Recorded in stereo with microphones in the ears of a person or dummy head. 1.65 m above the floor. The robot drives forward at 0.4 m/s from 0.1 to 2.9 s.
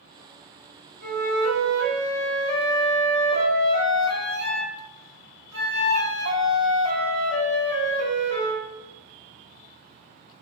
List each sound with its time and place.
1.0 s a flute: 45° right (ahead or behind), 1.2 m; by 8.6 s 80° right, 0.9 m